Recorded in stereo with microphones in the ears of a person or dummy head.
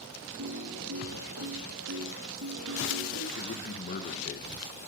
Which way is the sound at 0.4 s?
75° right (ahead or behind).